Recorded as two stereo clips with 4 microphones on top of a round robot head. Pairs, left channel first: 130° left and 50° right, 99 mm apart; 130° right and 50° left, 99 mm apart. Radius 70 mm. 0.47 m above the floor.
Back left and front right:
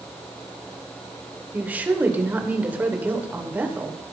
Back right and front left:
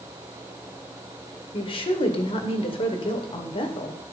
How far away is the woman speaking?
About 2 m.